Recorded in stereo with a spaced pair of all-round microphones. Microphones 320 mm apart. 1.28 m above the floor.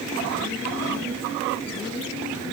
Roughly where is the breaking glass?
No breaking glass in this recording.